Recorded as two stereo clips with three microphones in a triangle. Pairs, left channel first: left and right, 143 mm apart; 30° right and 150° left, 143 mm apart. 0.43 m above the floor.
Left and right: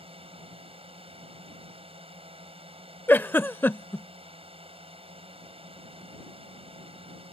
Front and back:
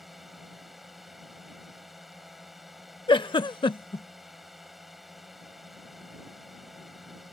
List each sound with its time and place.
0.0 s a drone: 120° right
3.1 s a giggle: 15° left